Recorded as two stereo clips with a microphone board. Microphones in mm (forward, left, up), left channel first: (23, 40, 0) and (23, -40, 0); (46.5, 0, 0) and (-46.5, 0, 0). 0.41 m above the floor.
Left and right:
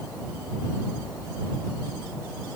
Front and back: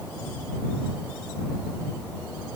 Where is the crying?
I don't hear crying.